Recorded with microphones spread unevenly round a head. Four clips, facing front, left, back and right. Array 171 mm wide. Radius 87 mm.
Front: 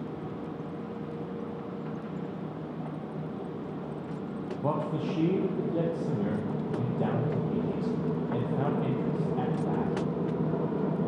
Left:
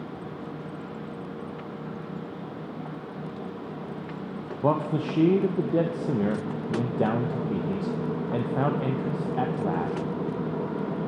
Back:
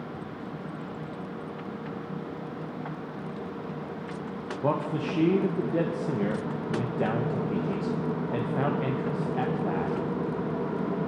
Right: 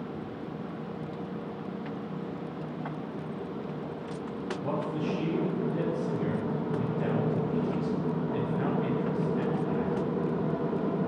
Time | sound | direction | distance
4.6 | a man speaking | 100° left | 1.0 m